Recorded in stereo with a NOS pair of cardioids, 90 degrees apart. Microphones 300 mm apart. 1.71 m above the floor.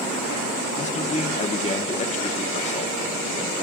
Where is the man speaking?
25° left, 1.4 m.